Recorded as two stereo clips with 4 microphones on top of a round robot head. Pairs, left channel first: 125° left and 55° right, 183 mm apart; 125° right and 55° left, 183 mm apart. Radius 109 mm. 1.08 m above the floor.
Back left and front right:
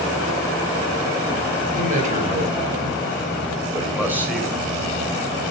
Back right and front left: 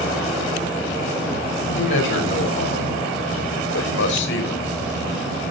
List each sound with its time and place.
1.8 s a man speaking: 105° right, 6 m; by 4.6 s 145° right, 5.5 m